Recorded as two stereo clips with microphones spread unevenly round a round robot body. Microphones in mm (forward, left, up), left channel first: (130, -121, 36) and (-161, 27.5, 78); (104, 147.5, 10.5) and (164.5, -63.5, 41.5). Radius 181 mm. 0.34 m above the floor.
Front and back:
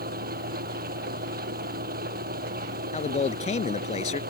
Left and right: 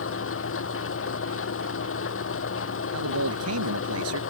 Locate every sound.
0.0 s an engine running: 85° left
2.9 s a man speaking: 95° right